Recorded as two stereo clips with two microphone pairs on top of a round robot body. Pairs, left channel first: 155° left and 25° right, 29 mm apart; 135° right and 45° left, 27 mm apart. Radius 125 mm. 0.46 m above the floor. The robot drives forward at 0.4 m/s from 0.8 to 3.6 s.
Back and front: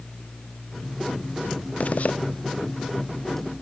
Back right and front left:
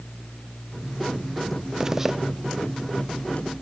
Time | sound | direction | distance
1.8 | a zipper | 120° left | 0.9 m